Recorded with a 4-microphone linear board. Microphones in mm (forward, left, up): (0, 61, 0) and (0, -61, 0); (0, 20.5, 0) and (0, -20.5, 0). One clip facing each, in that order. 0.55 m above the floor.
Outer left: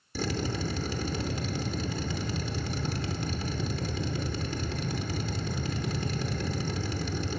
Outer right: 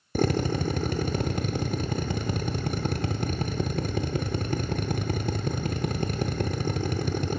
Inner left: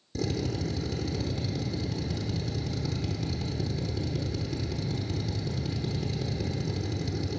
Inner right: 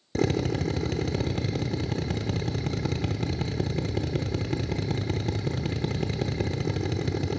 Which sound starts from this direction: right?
A drill, at 0.1 s.